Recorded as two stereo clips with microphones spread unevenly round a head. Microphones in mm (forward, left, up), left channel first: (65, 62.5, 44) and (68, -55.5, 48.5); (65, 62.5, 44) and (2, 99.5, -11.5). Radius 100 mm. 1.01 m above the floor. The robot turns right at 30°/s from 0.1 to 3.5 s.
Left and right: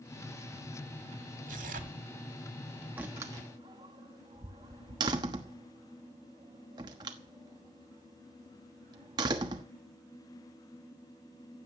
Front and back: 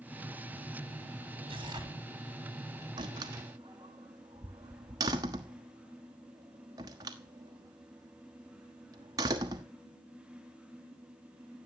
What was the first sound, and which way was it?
Tearing paper, 135° right.